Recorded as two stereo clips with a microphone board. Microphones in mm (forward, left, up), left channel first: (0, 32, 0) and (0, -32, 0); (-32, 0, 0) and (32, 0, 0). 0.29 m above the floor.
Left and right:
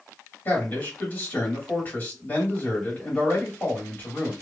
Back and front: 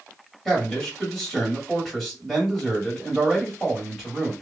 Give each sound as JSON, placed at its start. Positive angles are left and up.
{"t": 0.5, "sound": "a man speaking", "azimuth_deg": 95, "distance_m": 1.6}